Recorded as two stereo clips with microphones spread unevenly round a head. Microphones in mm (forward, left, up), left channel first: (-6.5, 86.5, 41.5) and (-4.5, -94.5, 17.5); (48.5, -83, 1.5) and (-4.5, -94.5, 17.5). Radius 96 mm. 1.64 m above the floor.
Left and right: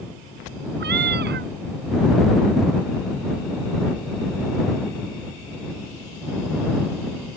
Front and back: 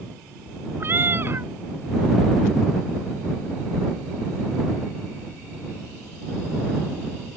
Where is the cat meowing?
125° right.